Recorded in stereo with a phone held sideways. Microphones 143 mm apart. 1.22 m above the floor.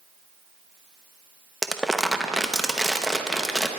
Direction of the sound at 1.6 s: Centre (ahead or behind).